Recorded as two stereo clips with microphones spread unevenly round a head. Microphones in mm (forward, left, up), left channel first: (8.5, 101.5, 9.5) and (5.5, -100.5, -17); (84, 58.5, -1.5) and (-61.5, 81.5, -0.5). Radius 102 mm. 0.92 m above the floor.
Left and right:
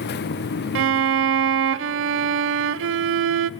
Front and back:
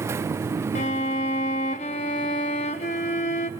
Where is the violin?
60° right, 0.5 m.